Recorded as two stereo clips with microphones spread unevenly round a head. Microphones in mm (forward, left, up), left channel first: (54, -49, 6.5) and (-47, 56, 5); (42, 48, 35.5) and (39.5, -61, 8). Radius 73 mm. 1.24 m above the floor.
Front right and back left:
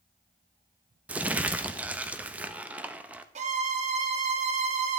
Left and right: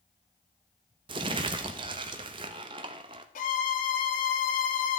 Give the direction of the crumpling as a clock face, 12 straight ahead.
5 o'clock.